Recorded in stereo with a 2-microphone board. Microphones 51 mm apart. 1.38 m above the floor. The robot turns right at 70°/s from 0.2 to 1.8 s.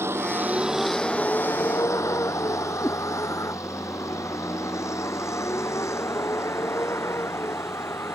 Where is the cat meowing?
60° left (ahead or behind).